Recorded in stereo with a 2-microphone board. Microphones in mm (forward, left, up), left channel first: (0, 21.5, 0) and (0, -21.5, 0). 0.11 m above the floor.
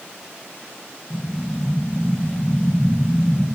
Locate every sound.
1.1 s an explosion: 75° left (ahead or behind), 7.5 m